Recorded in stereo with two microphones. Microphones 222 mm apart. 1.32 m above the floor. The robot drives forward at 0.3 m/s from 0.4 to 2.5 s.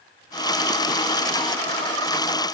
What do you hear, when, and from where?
Only background noise.